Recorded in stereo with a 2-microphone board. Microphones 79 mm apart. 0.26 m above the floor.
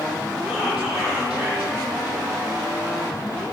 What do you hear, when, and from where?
0.5 s whispering: 15° right (ahead or behind), 7 m